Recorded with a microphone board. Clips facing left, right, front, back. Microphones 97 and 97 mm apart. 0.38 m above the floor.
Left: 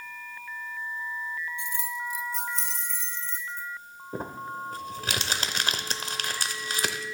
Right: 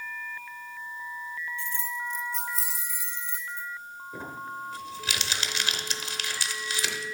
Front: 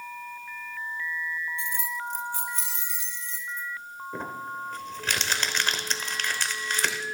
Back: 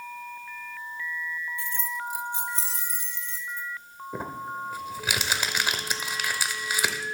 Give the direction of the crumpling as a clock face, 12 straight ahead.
9 o'clock.